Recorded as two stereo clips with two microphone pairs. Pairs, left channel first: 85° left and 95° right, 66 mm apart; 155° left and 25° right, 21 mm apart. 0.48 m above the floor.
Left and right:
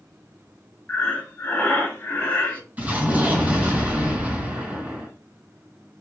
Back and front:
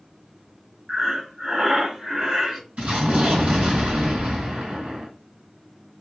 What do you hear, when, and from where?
0.9 s breathing: 20° left, 0.8 m
2.8 s an explosion: 30° right, 2 m